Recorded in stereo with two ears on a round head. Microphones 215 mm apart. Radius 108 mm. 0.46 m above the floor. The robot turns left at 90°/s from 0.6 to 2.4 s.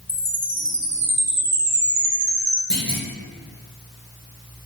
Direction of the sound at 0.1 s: 20° left.